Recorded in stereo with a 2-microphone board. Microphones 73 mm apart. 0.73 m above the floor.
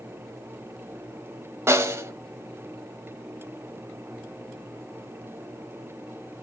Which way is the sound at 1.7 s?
35° right (ahead or behind).